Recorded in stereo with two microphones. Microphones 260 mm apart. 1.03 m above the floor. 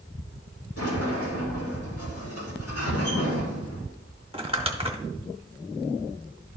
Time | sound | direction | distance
0.8 | a sliding door | 70° left (ahead or behind) | 2.5 m
2.9 | a cupboard door | 80° left | 2 m
4.3 | crumpling | 25° right (ahead or behind) | 1.1 m